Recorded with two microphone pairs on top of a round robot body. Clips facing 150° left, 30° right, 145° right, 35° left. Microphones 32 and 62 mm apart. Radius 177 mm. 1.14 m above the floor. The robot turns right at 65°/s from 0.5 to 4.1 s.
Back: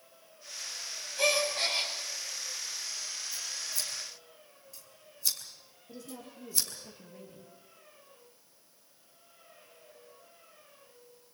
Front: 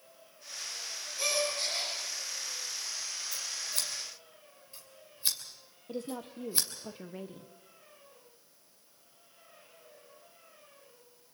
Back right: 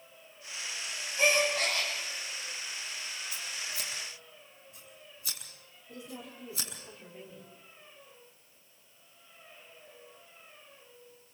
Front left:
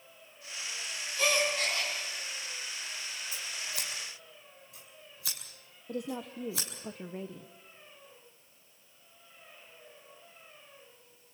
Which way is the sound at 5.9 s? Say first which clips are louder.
Front 7 dB, front left 8 dB; 5° left.